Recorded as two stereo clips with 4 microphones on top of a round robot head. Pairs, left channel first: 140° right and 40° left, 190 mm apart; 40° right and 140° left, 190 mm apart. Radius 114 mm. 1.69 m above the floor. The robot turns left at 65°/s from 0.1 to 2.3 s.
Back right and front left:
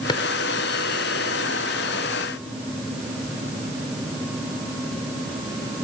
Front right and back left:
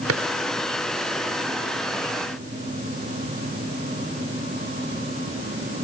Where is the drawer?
150° left; by 0.2 s 145° left.